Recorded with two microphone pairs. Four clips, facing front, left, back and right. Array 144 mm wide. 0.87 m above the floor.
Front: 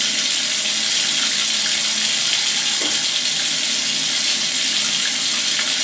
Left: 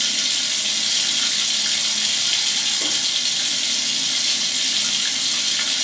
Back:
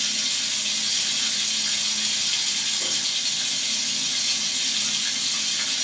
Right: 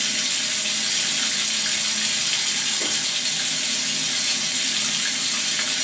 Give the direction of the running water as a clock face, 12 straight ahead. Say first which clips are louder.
Even, front 7 dB; 12 o'clock.